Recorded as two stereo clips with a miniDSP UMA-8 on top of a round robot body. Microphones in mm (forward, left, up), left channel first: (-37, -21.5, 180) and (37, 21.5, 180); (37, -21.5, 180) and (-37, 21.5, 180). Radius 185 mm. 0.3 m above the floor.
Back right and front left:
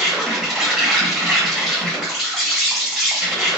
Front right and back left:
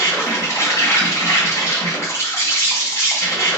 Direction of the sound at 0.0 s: 55° right.